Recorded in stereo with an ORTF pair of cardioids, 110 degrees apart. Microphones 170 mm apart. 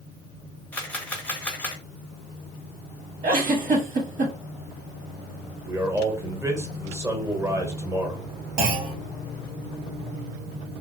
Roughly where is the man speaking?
Ahead.